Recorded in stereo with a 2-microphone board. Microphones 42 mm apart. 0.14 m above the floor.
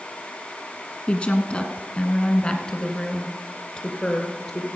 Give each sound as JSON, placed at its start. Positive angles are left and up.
{"t": 1.1, "sound": "a woman speaking", "side_deg": 25, "distance_m": 1.3}